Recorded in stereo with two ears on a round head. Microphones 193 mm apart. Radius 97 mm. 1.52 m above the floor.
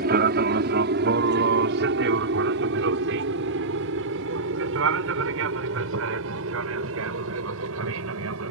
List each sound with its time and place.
0.0 s an aircraft: 45° right (ahead or behind); by 8.5 s 70° right (ahead or behind)